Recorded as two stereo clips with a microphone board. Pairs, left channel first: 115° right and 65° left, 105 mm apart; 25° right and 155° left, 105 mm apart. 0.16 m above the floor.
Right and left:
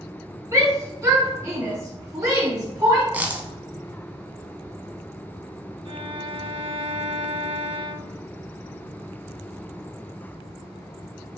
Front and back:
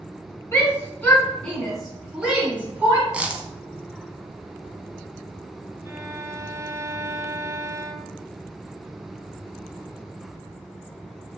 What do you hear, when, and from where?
0.5 s a shout: 25° left, 2 m; by 3.0 s 105° left, 2 m
3.1 s a dropped coin: 105° left, 0.6 m
5.8 s a violin: 95° left, 0.7 m